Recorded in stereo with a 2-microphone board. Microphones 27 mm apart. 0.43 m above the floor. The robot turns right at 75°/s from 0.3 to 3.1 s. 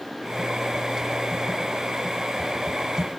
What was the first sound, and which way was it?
Only background noise.